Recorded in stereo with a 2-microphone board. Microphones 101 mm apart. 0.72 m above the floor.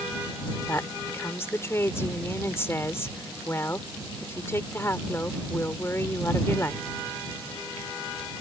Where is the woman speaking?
25° left (ahead or behind).